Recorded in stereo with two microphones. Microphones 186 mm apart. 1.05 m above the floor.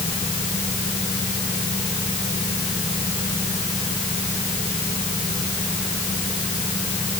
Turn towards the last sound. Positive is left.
No sound to turn to.